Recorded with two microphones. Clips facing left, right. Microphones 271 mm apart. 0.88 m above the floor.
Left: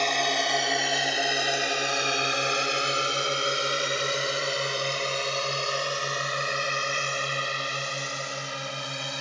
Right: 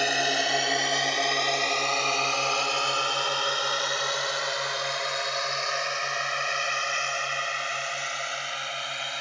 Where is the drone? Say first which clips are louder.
Even; 10° right (ahead or behind); by 9.2 s 50° left (ahead or behind).